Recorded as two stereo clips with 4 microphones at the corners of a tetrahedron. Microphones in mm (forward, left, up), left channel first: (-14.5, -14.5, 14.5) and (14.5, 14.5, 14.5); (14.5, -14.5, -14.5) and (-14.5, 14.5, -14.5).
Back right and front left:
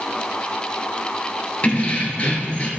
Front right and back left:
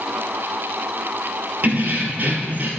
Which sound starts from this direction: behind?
Keys jangling, at 1.6 s.